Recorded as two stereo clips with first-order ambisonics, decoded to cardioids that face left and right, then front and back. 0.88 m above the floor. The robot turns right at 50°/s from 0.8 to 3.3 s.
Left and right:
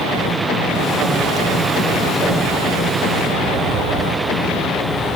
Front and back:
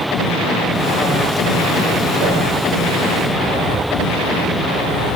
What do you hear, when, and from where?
2.2 s a whoosh: 160° right, 1.0 m; by 2.4 s 150° right, 1.0 m